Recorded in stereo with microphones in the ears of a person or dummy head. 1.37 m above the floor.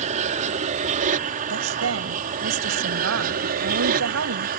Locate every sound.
0.0 s an aircraft: 40° right (ahead or behind); by 4.6 s 50° right (ahead or behind)
1.5 s a woman speaking: 75° right (ahead or behind)